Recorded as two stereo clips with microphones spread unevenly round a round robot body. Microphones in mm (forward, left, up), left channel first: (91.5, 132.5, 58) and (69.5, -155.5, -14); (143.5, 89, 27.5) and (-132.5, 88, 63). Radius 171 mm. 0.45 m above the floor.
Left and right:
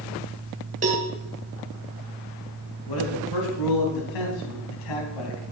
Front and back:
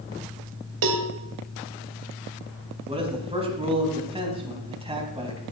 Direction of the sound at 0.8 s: 160° right.